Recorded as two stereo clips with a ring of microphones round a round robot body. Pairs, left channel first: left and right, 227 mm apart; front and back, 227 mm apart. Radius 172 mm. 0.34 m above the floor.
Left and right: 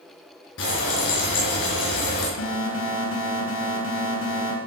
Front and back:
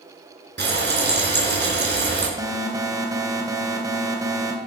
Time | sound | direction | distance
0.6 | frying | 140° left | 5 m
2.4 | an alarm | 105° left | 3 m